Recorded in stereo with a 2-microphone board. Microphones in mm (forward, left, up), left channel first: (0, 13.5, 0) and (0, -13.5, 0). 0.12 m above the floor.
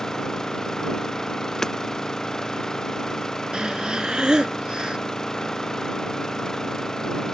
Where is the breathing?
30° right (ahead or behind).